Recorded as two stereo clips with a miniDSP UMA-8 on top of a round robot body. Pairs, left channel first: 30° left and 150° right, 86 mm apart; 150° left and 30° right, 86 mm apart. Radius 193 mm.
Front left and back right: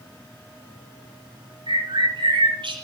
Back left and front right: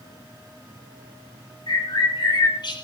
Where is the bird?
175° right, 6.5 m.